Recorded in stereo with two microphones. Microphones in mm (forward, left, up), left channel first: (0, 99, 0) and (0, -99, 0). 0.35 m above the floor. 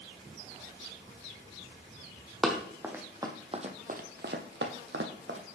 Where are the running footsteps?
Centre (ahead or behind), 1.1 m; by 5.4 s 70° right (ahead or behind), 1.0 m.